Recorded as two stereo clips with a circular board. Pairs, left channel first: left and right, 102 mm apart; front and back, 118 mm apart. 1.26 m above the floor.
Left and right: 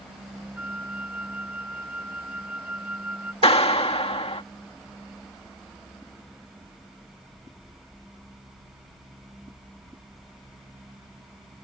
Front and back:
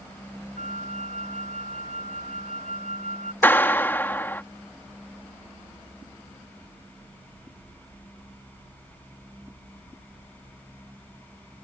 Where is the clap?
75° left.